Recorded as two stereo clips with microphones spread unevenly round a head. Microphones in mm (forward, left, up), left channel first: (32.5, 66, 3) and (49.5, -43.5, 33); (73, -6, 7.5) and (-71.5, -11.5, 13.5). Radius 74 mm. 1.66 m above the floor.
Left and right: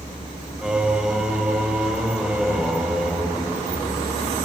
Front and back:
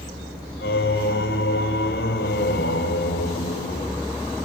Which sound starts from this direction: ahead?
Singing, at 0.6 s.